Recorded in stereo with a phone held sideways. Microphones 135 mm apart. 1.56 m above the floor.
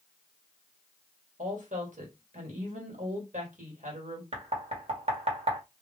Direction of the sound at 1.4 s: 70° right (ahead or behind).